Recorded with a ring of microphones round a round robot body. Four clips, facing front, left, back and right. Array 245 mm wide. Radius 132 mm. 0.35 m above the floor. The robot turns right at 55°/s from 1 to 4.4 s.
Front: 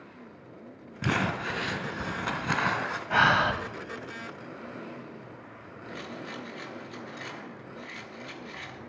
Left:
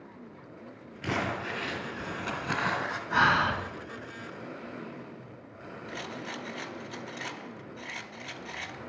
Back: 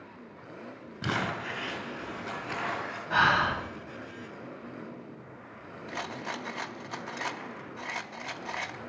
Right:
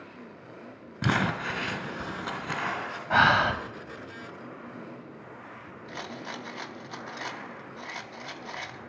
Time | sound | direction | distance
1.0 | crumpling | 85° right | 1.5 m
3.1 | breathing | 75° right | 1.6 m
5.9 | a rattle | 155° right | 0.7 m